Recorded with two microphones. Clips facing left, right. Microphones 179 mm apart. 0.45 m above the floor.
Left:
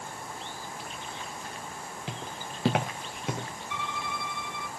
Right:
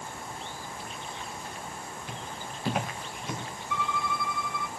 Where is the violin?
20° left (ahead or behind), 1.3 m.